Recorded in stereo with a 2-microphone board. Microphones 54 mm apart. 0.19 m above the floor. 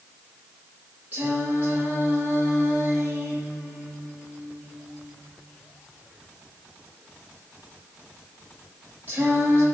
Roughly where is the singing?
Right.